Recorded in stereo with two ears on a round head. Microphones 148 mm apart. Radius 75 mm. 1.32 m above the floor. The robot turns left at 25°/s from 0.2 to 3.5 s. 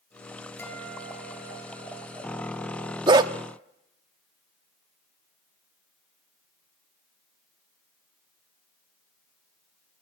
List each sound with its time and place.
0.6 s a guitar: 10° left, 6 m; by 3.0 s 50° right, 6 m
3.1 s a dog barking: 25° right (ahead or behind), 0.8 m